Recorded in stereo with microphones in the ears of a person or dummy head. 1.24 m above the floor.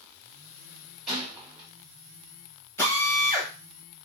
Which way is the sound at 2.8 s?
10° left (ahead or behind).